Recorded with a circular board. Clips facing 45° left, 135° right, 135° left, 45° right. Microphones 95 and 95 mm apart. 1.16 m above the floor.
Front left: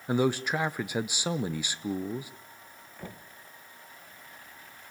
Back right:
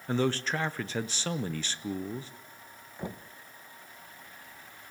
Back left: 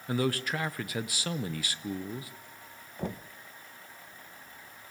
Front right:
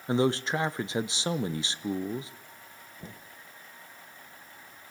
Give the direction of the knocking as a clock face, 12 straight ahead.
7 o'clock.